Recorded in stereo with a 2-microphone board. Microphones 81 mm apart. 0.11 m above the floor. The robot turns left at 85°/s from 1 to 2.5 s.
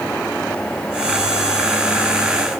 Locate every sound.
Only background noise.